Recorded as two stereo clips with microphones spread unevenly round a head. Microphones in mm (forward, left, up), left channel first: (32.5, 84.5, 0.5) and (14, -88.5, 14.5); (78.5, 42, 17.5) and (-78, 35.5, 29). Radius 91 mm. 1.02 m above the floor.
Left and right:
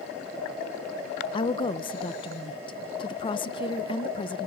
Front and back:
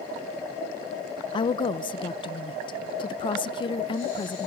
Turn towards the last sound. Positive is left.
turn(degrees=40)